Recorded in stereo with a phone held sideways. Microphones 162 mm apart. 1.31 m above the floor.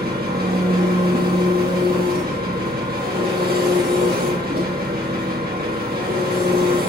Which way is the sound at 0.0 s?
70° right (ahead or behind).